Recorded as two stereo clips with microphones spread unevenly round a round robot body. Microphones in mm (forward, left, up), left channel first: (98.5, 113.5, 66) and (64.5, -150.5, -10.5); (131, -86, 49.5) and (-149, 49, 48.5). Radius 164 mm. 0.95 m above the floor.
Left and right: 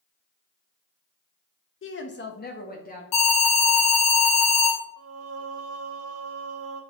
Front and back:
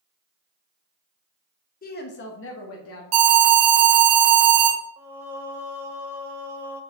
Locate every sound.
1.8 s a woman speaking: 35° left, 1.3 m; by 3.0 s 20° left, 2.5 m
3.1 s an alarm: 130° left, 3 m
5.0 s singing: 125° right, 1.7 m